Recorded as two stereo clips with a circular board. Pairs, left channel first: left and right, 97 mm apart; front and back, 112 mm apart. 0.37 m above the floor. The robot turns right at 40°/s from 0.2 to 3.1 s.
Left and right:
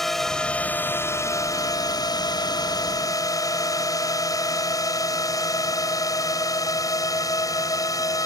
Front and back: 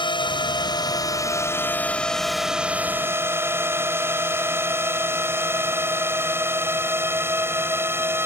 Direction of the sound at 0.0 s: 5° left.